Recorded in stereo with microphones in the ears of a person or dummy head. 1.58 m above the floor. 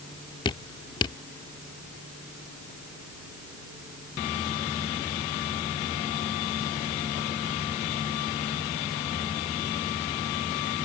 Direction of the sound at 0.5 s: 30° left (ahead or behind).